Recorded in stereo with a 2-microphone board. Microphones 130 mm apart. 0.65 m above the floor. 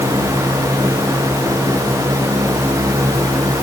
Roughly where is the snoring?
No snoring in this recording.